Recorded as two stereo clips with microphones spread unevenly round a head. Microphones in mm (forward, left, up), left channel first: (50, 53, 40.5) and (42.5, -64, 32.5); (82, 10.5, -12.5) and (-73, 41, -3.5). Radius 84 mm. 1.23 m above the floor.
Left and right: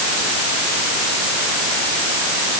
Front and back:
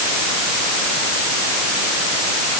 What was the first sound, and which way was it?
Only background noise.